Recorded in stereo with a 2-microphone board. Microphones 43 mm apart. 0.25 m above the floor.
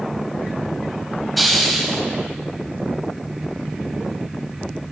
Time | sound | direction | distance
1.4 | a hiss | centre (ahead or behind) | 1.2 m